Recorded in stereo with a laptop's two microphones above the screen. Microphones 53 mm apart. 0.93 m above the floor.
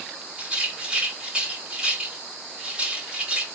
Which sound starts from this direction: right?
A rattle, at 0.4 s.